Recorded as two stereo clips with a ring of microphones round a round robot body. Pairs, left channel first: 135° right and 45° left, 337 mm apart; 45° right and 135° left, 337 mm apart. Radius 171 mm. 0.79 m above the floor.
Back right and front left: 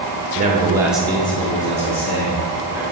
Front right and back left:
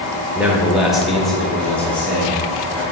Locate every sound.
0.3 s a man speaking: 55° left, 1.1 m; by 2.8 s 125° right, 1.6 m